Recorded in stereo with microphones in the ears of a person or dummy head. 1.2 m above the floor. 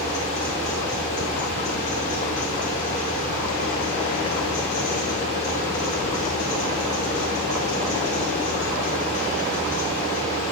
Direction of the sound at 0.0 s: 40° left (ahead or behind).